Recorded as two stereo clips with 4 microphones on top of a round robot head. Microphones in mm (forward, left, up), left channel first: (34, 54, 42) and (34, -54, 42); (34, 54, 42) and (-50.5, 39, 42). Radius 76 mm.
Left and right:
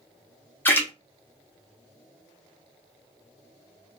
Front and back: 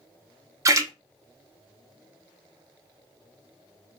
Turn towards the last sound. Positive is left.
turn(degrees=155)